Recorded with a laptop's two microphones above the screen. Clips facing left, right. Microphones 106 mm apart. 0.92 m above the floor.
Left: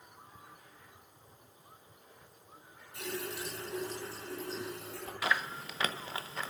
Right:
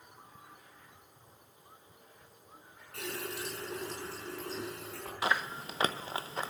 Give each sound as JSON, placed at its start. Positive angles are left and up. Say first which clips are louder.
{"t": 2.9, "sound": "a running tap", "louder": "even", "side_deg": -80, "distance_m": 7.5}
{"t": 5.2, "sound": "chewing", "louder": "right 1 dB", "side_deg": -25, "distance_m": 0.9}